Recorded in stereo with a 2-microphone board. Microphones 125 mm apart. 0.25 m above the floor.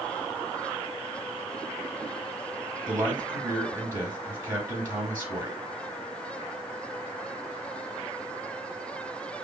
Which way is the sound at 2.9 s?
20° right (ahead or behind).